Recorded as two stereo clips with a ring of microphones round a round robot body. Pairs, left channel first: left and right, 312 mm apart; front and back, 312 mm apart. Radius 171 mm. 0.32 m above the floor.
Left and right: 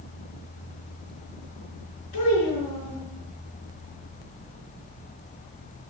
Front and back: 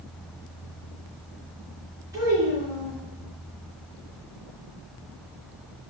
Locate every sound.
2.1 s a child speaking: 100° left, 4.5 m